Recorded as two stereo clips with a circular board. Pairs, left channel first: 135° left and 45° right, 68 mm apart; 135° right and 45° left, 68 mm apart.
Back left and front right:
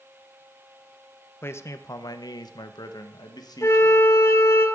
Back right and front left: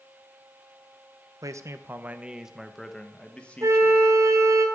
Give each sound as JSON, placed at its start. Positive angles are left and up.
{"t": 1.4, "sound": "a man speaking", "azimuth_deg": 80, "distance_m": 0.8}
{"t": 3.6, "sound": "a flute", "azimuth_deg": 90, "distance_m": 1.5}